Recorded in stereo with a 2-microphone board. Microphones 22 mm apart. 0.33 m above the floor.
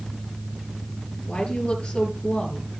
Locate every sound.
1.3 s a woman speaking: 55° left (ahead or behind), 6.5 m